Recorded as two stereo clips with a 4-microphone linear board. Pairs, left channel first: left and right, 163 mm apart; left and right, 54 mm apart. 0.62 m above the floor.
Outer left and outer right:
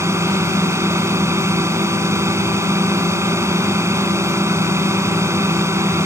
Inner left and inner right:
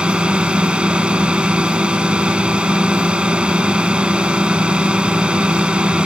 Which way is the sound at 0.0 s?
15° right (ahead or behind).